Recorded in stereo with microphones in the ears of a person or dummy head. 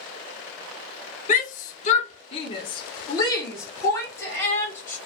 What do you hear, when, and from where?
1.3 s a shout: 30° left (ahead or behind), 0.6 m; by 5.0 s 10° left (ahead or behind), 1.9 m